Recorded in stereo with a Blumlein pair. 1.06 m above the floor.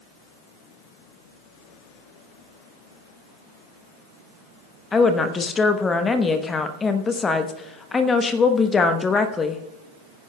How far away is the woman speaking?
About 1.0 m.